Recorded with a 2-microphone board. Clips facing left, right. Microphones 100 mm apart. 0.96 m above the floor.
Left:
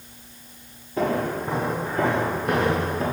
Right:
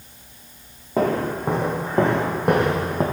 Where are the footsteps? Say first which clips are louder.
Right 3 dB; 70° right (ahead or behind), 3 m; by 3.0 s 55° right (ahead or behind), 1.9 m.